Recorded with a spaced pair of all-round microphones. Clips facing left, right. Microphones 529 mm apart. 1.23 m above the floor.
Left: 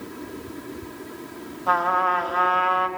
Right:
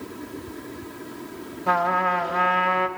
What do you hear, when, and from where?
1.7 s a trumpet: 45° right (ahead or behind), 0.7 m